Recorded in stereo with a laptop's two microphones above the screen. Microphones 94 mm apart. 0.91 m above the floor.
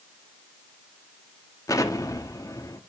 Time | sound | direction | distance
1.7 | an explosion | 35° left (ahead or behind) | 1.1 m